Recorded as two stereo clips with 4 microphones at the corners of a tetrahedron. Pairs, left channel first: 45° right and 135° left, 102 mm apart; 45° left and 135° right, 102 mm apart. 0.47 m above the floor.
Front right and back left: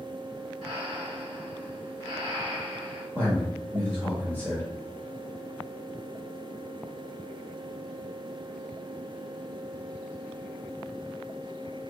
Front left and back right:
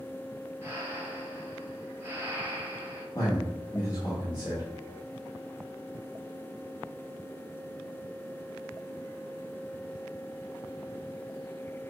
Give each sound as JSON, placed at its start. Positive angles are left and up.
{"t": 0.6, "sound": "breathing", "azimuth_deg": 160, "distance_m": 2.0}
{"t": 3.1, "sound": "a man speaking", "azimuth_deg": 80, "distance_m": 1.1}